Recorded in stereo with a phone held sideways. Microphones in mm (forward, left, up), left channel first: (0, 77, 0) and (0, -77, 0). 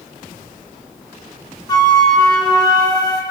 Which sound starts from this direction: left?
A flute, at 1.7 s.